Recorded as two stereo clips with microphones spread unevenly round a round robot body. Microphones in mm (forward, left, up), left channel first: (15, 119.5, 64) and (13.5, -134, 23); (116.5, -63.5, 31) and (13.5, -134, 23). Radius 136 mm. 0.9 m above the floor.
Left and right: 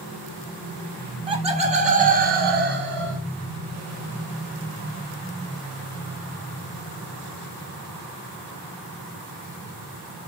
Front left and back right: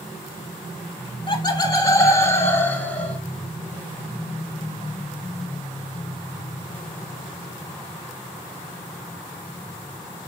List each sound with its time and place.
1.1 s laughter: 15° right, 3 m; by 3.2 s 45° right, 3.5 m